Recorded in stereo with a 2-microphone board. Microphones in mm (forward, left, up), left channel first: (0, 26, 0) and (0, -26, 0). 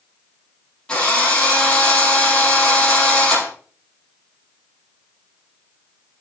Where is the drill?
15° left (ahead or behind), 7 m.